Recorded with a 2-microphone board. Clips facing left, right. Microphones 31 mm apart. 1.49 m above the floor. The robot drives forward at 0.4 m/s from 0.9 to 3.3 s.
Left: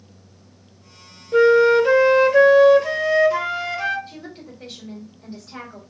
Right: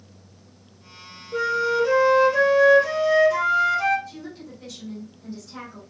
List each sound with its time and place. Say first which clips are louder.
1.3 s a flute: left 9 dB; 40° left (ahead or behind), 0.5 m; by 4.0 s 20° left (ahead or behind), 0.9 m
4.1 s a woman speaking: even; 35° left (ahead or behind), 1.9 m